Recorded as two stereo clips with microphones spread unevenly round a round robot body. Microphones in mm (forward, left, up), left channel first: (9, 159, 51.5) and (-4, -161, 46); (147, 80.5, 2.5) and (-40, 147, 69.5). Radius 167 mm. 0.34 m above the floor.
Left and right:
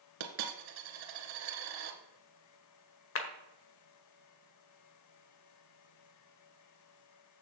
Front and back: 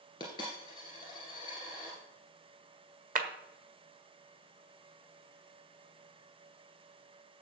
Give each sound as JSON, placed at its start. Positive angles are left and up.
{"t": 0.2, "sound": "a dropped coin", "azimuth_deg": -95, "distance_m": 1.7}
{"t": 3.1, "sound": "a clap", "azimuth_deg": 110, "distance_m": 1.4}